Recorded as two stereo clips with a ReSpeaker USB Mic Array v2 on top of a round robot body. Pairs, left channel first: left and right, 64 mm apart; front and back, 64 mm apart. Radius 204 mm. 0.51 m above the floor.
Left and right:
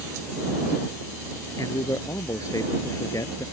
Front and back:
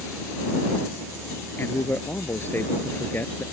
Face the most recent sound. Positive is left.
turn(degrees=55)